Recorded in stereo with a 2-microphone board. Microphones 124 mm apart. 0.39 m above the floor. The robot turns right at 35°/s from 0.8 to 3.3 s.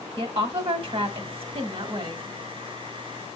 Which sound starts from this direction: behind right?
A woman speaking, at 0.2 s.